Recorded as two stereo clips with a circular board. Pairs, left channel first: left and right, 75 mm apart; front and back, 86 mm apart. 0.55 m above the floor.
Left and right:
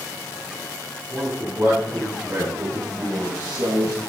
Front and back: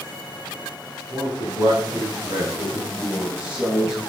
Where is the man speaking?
150° right, 6 m; by 4.0 s 100° right, 4.5 m.